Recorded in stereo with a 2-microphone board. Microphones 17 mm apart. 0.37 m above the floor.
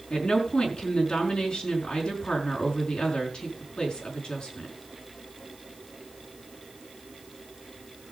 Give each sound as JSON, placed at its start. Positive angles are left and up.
{"t": 0.1, "sound": "a woman speaking", "side_deg": 75, "distance_m": 5.0}